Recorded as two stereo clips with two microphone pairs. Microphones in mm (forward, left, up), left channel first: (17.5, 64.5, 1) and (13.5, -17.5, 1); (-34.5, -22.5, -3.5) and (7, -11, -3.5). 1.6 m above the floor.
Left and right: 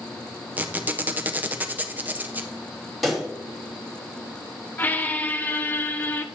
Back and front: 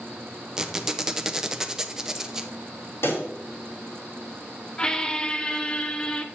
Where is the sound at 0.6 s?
45° right, 0.6 m.